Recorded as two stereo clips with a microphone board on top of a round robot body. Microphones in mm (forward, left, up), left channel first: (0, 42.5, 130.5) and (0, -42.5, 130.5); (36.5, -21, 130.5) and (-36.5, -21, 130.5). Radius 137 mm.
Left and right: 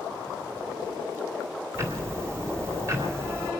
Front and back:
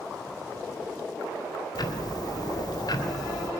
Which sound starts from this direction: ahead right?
Ticking, at 1.8 s.